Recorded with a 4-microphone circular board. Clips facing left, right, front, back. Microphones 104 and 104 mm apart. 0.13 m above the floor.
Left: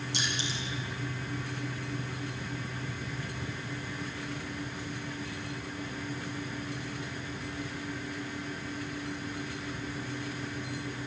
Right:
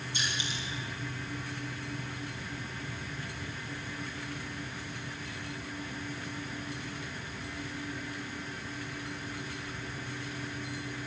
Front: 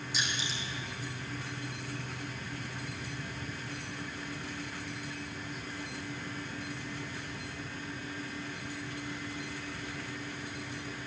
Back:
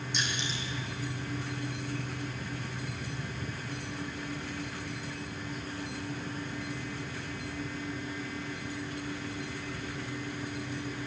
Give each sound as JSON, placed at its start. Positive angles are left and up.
{"t": 0.1, "sound": "crushing", "azimuth_deg": 85, "distance_m": 6.5}